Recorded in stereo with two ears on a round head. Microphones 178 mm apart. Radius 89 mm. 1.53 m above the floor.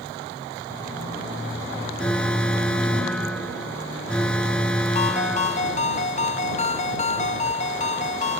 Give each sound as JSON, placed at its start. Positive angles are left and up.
{"t": 2.0, "sound": "an alarm", "side_deg": 5}
{"t": 5.0, "sound": "a ringtone", "side_deg": 40}